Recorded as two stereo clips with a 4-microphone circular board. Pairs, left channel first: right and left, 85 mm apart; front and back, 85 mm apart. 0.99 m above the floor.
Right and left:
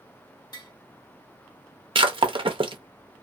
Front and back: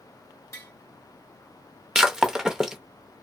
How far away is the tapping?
About 1.1 m.